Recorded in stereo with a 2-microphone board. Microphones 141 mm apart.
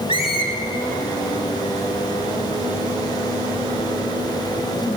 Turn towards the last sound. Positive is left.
turn(degrees=40)  # may be behind; listen again after turning